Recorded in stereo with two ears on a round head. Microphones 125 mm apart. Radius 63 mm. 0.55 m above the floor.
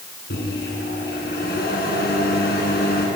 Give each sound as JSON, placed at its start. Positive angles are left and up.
{"t": 0.3, "sound": "a microwave", "side_deg": 80, "distance_m": 6.0}